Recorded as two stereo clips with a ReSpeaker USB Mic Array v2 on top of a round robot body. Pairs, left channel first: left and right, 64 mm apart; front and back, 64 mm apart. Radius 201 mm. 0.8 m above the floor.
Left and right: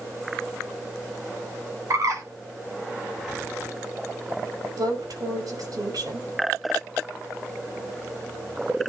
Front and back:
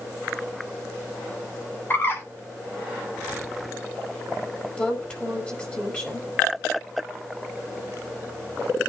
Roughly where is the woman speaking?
Right.